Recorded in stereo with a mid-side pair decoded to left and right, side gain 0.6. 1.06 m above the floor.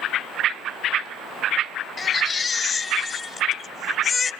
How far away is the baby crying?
About 2.5 m.